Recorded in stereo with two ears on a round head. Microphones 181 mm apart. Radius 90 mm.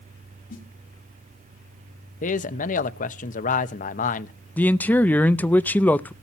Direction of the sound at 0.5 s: 45° left (ahead or behind).